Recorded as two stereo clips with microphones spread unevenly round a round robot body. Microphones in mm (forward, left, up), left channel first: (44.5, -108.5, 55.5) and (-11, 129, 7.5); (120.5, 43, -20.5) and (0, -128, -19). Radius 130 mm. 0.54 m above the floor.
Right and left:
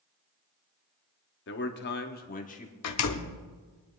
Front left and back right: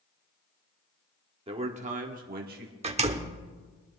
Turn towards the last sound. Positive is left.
turn(degrees=-70)